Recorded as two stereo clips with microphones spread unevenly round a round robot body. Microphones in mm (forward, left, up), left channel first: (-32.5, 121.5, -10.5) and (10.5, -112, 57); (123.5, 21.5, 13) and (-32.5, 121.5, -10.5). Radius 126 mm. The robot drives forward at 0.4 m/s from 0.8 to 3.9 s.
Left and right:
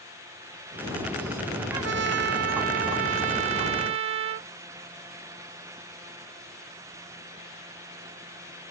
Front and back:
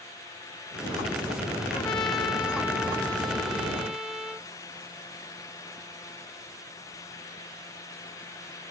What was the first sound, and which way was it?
A trumpet, 105° right.